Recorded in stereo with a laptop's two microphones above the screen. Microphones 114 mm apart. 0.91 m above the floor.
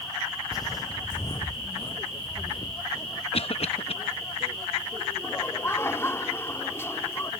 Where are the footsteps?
35° left (ahead or behind); by 3.2 s 40° left (ahead or behind).